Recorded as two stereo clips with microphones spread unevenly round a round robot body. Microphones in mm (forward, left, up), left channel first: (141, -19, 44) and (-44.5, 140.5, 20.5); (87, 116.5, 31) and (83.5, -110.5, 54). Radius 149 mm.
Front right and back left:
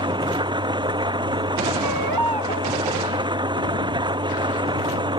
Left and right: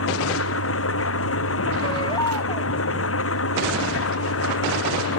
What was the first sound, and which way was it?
An engine running, 65° left.